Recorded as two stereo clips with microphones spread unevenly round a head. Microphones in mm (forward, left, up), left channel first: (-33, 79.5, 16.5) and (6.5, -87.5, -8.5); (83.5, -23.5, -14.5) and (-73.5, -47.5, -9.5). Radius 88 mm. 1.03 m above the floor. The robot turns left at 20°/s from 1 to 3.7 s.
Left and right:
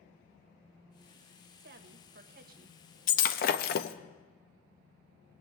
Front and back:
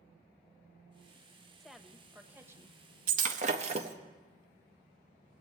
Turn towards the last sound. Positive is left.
turn(degrees=130)